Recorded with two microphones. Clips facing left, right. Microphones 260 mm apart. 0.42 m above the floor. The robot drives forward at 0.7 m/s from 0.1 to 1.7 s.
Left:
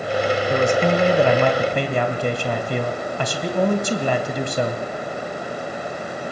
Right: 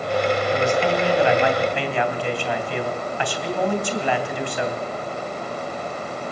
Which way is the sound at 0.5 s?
55° left (ahead or behind).